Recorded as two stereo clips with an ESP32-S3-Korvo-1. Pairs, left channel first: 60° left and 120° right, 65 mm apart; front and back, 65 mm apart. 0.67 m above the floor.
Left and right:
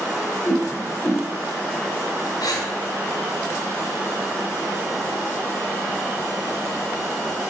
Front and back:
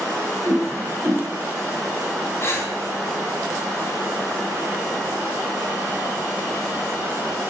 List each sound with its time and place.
0.5 s a whoosh: 130° left, 2.5 m
2.4 s breathing: 50° left, 2 m